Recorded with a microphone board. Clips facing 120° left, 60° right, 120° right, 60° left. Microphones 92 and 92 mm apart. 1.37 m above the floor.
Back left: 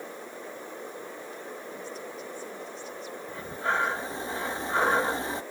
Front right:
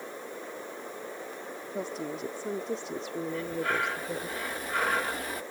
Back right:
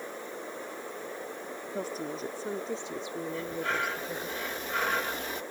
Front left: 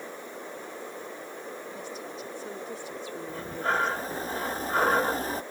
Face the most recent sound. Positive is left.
turn(degrees=75)